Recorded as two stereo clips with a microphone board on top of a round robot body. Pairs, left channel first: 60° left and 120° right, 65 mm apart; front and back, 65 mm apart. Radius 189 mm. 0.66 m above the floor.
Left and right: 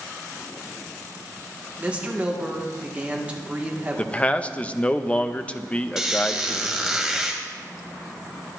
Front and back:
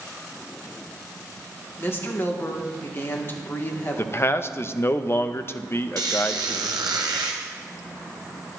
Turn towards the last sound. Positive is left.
turn(degrees=160)